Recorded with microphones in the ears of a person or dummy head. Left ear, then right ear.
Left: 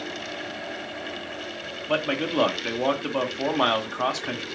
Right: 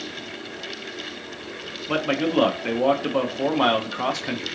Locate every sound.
1.9 s a man speaking: 10° left (ahead or behind), 0.5 m